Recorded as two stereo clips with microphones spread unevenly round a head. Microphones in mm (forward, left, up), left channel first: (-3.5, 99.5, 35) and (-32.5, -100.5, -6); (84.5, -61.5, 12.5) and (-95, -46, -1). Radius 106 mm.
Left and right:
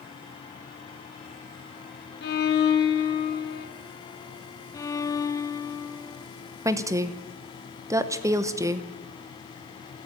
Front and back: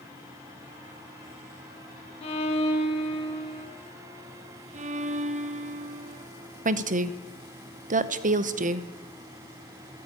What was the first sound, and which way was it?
A violin, 55° left.